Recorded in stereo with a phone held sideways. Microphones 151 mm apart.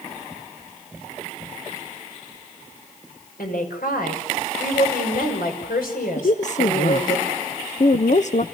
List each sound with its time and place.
3.4 s a woman speaking: 85° left, 6 m
6.2 s a woman speaking: 55° left (ahead or behind), 0.7 m